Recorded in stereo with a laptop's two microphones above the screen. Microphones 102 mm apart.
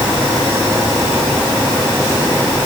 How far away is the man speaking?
No man speaking in this recording.